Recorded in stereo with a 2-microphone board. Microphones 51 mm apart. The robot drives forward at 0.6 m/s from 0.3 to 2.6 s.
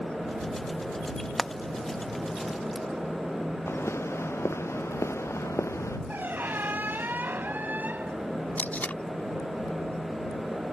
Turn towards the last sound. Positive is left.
turn(degrees=30)  # may be behind; listen again after turning